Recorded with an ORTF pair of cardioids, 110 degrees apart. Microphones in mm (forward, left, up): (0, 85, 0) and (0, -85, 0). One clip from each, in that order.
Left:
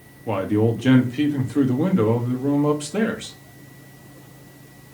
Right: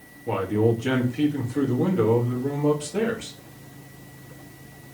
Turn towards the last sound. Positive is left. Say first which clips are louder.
# left 1 dB
turn(degrees=30)